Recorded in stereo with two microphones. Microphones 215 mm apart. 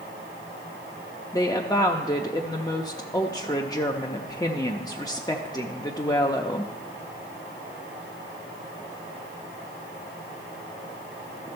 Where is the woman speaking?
15° left (ahead or behind), 0.5 m.